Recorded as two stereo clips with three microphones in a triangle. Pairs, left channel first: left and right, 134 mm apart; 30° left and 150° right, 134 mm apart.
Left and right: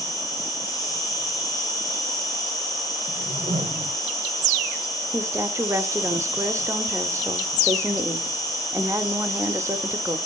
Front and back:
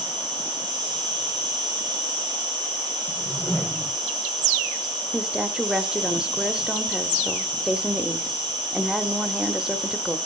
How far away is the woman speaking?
About 0.8 m.